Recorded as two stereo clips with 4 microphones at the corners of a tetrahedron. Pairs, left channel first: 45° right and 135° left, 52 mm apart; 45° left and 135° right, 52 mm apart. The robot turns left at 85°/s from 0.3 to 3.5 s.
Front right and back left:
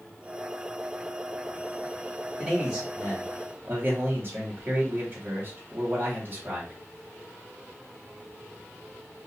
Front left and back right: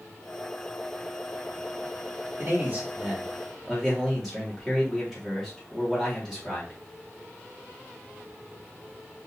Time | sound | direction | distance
2.4 | a man speaking | 125° right | 1.8 m